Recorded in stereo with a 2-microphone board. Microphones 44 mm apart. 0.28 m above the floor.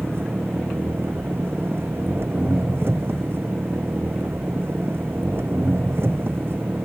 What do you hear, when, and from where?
0.0 s an engine running: 60° right (ahead or behind)